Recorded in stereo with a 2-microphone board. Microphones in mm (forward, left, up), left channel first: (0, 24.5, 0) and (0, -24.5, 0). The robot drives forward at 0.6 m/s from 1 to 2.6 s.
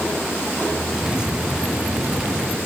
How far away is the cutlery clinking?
I don't hear cutlery clinking.